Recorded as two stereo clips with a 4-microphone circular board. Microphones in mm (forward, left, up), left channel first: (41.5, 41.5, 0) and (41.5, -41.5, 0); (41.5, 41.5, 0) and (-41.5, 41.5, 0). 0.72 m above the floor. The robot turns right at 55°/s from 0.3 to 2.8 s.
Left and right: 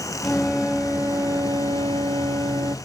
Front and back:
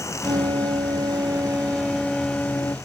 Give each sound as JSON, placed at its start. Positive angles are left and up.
{"t": 0.2, "sound": "a flute", "azimuth_deg": 170}